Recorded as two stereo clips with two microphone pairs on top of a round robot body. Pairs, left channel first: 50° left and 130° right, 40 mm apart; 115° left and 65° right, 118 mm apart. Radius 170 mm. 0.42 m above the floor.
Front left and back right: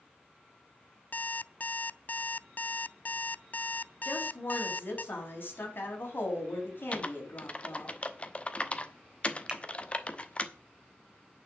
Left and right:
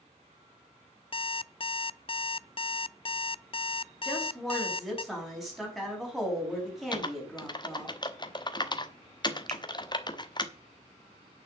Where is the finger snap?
65° right, 2 m.